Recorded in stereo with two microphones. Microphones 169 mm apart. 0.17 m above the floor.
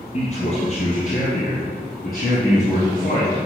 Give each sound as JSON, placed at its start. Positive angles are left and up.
{"t": 0.1, "sound": "a man speaking", "side_deg": 50, "distance_m": 2.0}